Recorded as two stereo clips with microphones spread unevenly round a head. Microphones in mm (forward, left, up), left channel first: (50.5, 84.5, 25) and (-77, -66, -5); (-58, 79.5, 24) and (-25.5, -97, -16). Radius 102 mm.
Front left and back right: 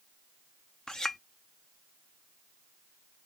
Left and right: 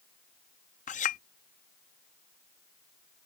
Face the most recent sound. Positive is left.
turn(degrees=130)